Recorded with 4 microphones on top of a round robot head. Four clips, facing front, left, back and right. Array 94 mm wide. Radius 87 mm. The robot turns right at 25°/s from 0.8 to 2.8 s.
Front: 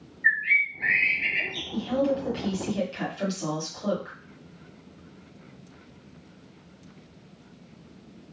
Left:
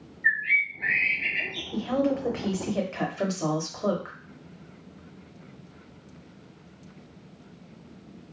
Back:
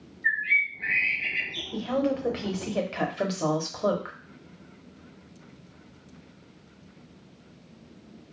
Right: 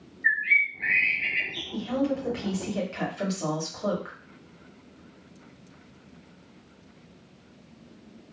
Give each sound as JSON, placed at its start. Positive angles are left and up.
{"t": 0.2, "sound": "a bird", "azimuth_deg": -20, "distance_m": 1.1}
{"t": 1.7, "sound": "a woman speaking", "azimuth_deg": 130, "distance_m": 1.0}